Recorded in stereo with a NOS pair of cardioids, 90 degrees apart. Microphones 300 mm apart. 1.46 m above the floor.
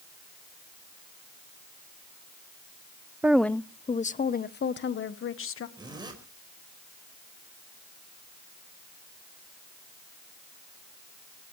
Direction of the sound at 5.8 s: 15° right.